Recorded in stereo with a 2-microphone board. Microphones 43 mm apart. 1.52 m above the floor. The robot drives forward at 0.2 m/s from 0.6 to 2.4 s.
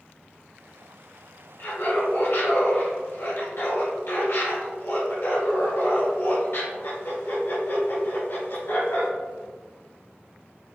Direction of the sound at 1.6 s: 70° left (ahead or behind).